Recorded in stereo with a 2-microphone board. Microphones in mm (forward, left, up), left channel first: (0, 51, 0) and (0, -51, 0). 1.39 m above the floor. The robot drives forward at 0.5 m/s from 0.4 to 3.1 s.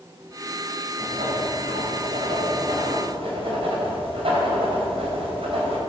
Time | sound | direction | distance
1.0 | writing | 55° right (ahead or behind) | 5 m